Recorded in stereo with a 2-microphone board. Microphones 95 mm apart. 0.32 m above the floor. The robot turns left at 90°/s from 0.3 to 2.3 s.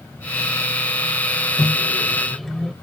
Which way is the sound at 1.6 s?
30° left (ahead or behind).